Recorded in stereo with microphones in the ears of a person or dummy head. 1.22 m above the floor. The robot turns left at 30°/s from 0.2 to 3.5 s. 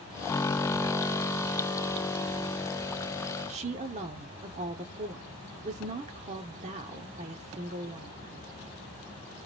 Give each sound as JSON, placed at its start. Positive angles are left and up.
{"t": 3.5, "sound": "a woman speaking", "side_deg": -30, "distance_m": 0.6}